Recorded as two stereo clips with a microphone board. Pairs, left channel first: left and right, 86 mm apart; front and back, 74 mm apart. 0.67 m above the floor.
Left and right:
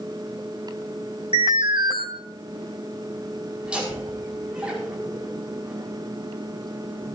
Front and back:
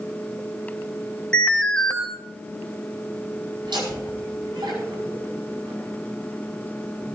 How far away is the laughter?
About 5 m.